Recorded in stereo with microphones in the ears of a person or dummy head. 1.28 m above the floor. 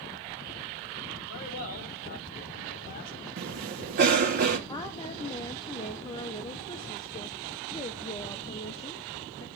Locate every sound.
1.3 s a man speaking: 45° left (ahead or behind), 4.5 m
3.4 s a cough: 50° right (ahead or behind), 1.8 m
4.7 s a woman speaking: 25° left (ahead or behind), 0.9 m